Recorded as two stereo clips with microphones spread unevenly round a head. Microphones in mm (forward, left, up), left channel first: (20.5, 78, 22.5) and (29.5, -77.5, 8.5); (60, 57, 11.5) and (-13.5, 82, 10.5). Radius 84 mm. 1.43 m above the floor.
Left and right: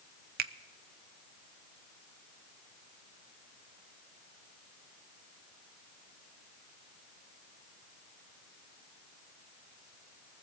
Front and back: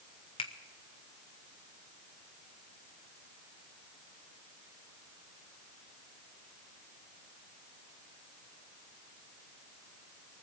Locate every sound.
0.4 s a finger snap: 60° right, 0.5 m